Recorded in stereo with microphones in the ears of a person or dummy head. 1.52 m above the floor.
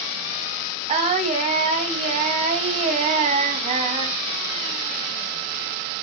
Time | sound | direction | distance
0.9 | singing | 25° right (ahead or behind) | 2.5 m